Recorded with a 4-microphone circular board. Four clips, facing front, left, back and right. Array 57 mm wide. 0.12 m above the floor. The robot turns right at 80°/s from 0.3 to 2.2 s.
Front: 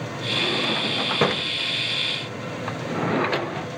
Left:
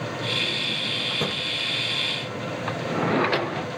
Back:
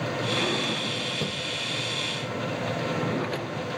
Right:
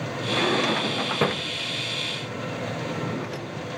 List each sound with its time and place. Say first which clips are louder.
0.3 s a drawer: right 5 dB, front 5 dB; 100° right; by 3.7 s 55° left